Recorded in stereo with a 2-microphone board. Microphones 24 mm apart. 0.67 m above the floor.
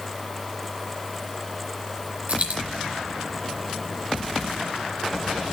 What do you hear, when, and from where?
2.3 s a dropped coin: 55° right (ahead or behind), 3.5 m